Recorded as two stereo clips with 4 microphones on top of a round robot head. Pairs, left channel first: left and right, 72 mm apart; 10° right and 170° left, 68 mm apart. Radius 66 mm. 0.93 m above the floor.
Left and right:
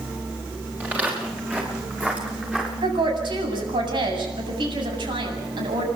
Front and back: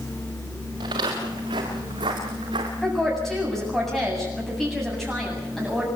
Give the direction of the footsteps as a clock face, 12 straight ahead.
5 o'clock.